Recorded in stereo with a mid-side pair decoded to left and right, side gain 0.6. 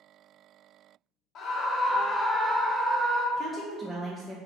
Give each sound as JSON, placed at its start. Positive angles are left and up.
{"t": 1.4, "sound": "a scream", "azimuth_deg": 50, "distance_m": 0.7}
{"t": 3.4, "sound": "a woman speaking", "azimuth_deg": -10, "distance_m": 0.5}